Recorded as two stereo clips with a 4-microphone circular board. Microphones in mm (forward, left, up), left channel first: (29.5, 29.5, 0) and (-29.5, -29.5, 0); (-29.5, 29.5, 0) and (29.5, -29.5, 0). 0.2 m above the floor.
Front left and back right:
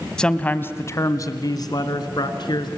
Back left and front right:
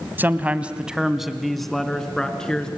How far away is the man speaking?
About 1.1 m.